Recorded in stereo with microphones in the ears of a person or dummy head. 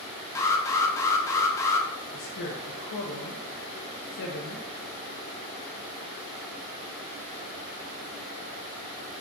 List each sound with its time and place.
0.3 s an alarm: 15° left (ahead or behind), 0.5 m
2.1 s a woman speaking: 50° left (ahead or behind), 0.6 m